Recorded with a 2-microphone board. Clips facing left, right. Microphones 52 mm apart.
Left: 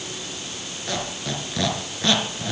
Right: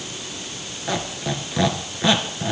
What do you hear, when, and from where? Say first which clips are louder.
0.9 s a squeak: right 3 dB; 15° right (ahead or behind), 2 m